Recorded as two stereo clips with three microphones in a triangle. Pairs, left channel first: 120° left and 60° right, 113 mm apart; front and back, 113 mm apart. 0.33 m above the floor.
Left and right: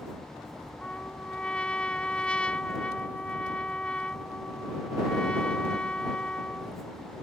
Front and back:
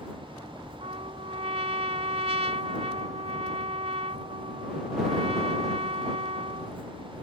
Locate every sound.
0.8 s a trumpet: 160° right